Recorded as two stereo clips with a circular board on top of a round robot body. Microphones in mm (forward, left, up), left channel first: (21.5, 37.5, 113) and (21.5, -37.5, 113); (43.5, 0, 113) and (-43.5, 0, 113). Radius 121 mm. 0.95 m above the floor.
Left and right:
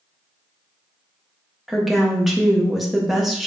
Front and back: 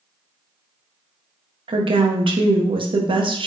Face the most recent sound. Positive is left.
turn(degrees=180)